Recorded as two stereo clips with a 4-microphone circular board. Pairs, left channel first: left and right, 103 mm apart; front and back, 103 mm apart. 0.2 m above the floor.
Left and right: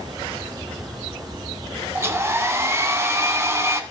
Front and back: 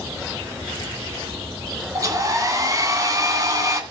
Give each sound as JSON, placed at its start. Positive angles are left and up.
{"t": 1.9, "sound": "a hair dryer", "azimuth_deg": -145, "distance_m": 1.9}